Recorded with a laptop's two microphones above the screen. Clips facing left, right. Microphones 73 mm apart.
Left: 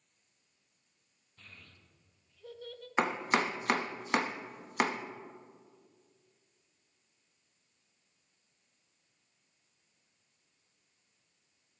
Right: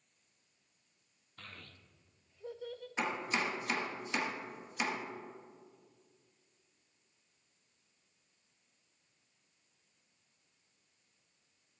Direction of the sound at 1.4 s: 70° right (ahead or behind).